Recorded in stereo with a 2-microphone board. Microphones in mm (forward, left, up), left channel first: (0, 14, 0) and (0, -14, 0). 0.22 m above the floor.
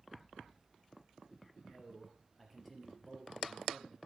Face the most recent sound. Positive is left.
turn(degrees=10)  # may be behind; listen again after turning